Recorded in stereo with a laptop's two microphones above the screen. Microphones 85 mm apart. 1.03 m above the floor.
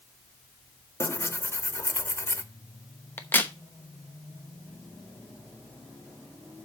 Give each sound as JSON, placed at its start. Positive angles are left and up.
{"t": 1.0, "sound": "tearing paper", "side_deg": 30, "distance_m": 0.8}
{"t": 3.2, "sound": "a crack", "side_deg": 25, "distance_m": 0.9}